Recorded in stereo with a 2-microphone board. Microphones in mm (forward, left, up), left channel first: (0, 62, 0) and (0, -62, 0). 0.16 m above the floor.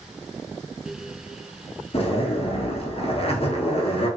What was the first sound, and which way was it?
A zipper, 50° left (ahead or behind).